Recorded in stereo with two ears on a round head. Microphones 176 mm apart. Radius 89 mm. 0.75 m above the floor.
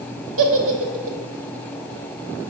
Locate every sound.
0.4 s a giggle: 70° right (ahead or behind), 0.8 m